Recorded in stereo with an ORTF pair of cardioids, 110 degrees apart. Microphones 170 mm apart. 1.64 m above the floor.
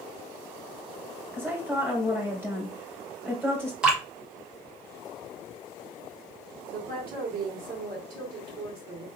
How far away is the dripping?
About 1.3 m.